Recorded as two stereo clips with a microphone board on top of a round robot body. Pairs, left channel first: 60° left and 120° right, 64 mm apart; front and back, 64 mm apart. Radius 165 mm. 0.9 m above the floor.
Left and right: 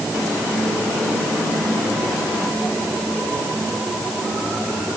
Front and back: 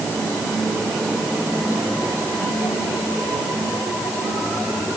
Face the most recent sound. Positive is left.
No sound to turn to.